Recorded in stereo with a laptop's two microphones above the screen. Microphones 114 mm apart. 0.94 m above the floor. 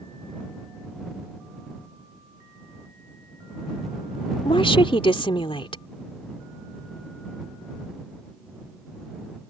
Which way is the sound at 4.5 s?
55° left (ahead or behind).